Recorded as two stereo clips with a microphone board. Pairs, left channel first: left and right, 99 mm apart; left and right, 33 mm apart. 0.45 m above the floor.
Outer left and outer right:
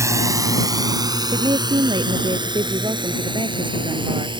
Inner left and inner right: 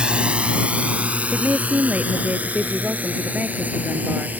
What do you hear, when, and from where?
0.0 s a drone: 35° right (ahead or behind); by 4.4 s 60° right (ahead or behind)
1.3 s a woman speaking: 55° right (ahead or behind)